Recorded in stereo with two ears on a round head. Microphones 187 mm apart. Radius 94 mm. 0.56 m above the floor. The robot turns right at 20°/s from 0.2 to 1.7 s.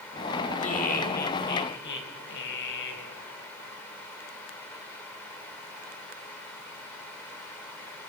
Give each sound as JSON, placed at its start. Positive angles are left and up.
{"t": 0.6, "sound": "laughter", "side_deg": 35, "distance_m": 3.0}